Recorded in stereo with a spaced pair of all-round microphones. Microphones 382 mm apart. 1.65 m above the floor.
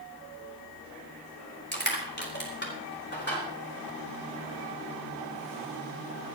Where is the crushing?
25° left (ahead or behind), 4.5 m.